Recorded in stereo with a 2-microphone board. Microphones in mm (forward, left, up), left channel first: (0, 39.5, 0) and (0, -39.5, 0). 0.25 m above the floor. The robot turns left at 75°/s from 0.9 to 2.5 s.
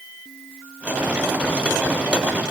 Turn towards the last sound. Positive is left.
No sound to turn to.